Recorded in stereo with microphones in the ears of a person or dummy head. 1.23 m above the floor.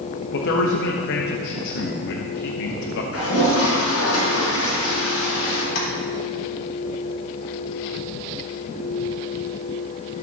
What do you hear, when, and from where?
0.3 s a man speaking: 65° left (ahead or behind), 1.1 m
3.1 s a toilet flushing: 75° left (ahead or behind), 5 m
5.8 s tapping: 80° left, 3 m